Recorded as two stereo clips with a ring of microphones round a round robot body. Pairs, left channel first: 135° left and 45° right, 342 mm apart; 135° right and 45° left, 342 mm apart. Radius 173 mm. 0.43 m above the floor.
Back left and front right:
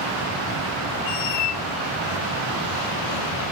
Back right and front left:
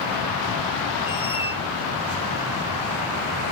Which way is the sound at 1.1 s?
150° left.